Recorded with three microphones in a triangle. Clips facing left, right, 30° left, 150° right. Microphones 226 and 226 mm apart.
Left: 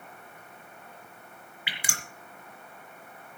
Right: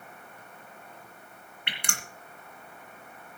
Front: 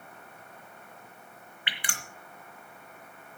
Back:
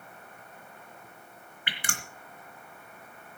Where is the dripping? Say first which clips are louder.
Right 1 dB, back 3 dB; 175° left, 3 m.